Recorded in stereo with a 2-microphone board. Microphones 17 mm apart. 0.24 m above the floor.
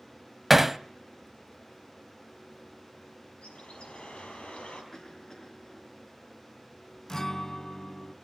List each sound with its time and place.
0.5 s hammering: 10° right (ahead or behind), 0.5 m
3.4 s a bird: 80° left, 5 m
4.9 s a cough: 35° left (ahead or behind), 4 m
7.1 s a guitar: 20° left (ahead or behind), 0.7 m